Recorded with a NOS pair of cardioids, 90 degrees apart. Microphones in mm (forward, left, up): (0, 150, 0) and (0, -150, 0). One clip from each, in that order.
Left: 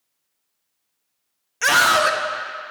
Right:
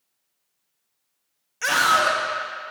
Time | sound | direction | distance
1.6 | a scream | 25° left | 0.9 m